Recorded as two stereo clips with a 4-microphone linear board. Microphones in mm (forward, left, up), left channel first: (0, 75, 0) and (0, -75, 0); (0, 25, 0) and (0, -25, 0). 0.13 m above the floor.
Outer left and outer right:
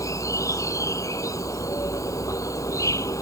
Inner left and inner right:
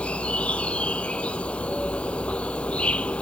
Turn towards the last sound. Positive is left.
turn(degrees=20)  # may be behind; listen again after turning